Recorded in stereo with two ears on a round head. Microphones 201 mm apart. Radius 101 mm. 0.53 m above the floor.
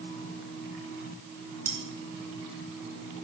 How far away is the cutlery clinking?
About 4.5 m.